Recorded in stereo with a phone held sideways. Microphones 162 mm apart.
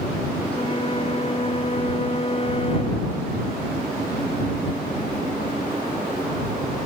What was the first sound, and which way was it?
A flute, 35° left (ahead or behind).